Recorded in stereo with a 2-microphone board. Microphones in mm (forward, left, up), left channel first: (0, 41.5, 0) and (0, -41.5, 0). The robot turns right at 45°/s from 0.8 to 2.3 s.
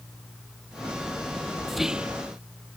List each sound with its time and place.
1.7 s whispering: centre (ahead or behind); by 2.2 s 20° right (ahead or behind)